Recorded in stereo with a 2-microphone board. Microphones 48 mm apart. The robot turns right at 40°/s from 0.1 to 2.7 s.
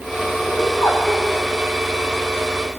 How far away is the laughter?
About 8.5 m.